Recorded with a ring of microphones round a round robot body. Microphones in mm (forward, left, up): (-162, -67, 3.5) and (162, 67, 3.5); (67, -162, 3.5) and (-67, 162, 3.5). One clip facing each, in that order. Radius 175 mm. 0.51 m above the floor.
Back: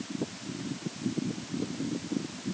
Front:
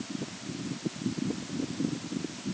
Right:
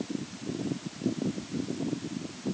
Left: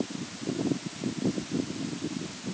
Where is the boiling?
No boiling in this recording.